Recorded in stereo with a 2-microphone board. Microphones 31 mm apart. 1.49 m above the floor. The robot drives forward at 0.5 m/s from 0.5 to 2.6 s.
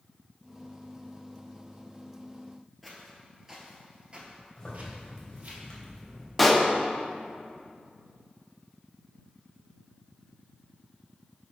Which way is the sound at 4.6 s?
15° left (ahead or behind).